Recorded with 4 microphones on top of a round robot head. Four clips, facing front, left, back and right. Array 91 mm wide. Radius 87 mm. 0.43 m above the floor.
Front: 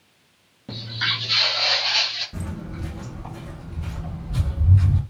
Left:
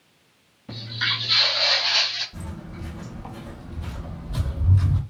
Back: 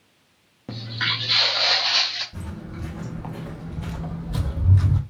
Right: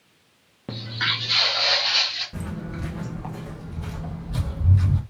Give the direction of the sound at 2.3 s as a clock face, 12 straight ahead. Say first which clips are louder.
Right 5 dB, front 2 dB; 2 o'clock.